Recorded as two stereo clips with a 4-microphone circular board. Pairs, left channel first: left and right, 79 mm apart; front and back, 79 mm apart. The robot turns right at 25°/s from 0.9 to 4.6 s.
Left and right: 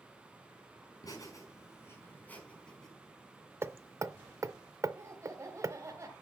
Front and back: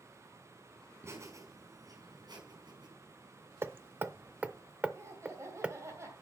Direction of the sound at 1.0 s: 125° left.